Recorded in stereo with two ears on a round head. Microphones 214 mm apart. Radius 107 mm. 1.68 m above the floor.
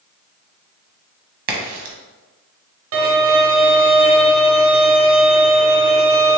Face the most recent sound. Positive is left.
turn(degrees=-60)  # may be behind; listen again after turning